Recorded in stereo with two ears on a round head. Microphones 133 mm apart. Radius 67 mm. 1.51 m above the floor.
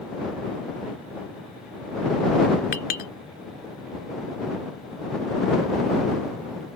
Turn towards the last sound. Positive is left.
turn(degrees=70)  # may be behind; listen again after turning